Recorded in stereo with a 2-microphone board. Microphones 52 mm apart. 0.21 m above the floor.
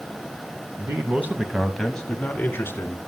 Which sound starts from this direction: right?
A man speaking, at 0.8 s.